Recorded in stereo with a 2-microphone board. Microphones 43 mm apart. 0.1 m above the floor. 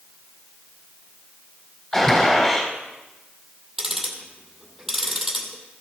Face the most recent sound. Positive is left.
turn(degrees=-5)  # may be behind; listen again after turning